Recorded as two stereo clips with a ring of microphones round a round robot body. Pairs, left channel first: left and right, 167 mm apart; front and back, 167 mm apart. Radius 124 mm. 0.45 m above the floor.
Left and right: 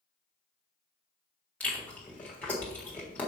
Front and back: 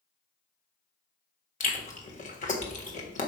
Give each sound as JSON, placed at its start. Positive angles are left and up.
{"t": 1.6, "sound": "chewing", "azimuth_deg": 10, "distance_m": 1.6}